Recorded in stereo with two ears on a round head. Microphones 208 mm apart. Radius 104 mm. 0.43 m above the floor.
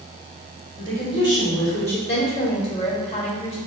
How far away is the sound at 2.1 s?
About 1.4 m.